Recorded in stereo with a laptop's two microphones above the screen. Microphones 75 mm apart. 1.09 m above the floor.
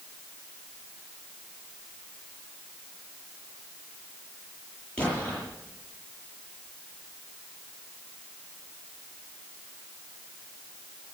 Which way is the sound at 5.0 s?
15° left (ahead or behind).